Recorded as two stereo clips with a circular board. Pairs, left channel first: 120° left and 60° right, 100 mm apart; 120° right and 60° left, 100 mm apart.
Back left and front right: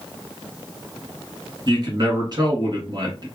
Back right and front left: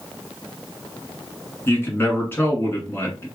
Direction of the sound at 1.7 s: 65° right.